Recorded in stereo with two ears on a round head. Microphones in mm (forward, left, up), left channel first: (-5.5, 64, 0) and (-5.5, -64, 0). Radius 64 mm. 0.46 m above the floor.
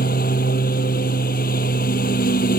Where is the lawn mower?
70° left (ahead or behind).